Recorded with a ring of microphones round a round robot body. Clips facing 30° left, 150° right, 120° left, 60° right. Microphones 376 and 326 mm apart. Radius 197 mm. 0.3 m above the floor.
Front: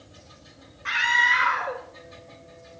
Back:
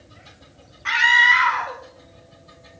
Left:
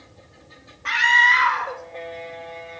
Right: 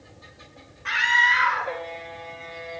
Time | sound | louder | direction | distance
0.8 | a scream | back 5 dB, left 4 dB | straight behind | 1.3 m